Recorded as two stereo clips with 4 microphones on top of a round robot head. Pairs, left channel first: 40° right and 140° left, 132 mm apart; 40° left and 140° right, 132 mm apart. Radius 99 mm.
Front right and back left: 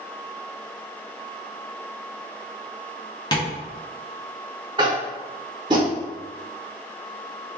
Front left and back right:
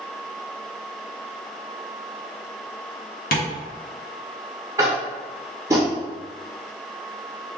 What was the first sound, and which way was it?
Tapping, 25° left.